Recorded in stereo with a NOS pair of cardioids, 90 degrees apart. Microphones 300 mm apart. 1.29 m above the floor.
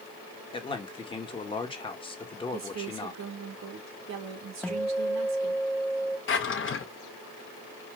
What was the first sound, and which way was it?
A man speaking, 15° left.